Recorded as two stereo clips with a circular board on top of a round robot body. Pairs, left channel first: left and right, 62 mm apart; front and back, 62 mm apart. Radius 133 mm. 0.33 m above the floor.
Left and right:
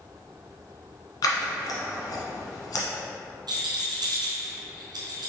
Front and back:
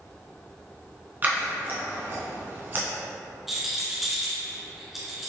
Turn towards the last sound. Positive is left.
turn(degrees=-95)